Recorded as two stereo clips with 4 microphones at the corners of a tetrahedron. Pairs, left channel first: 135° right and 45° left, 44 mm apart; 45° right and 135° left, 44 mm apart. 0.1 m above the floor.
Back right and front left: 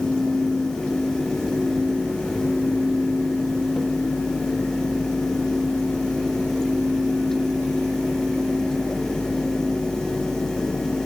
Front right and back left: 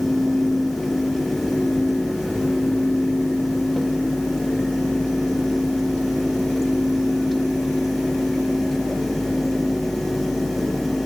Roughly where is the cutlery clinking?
I don't hear cutlery clinking.